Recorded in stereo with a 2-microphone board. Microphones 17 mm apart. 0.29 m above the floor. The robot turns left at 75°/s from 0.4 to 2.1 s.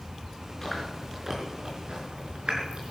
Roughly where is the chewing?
Left.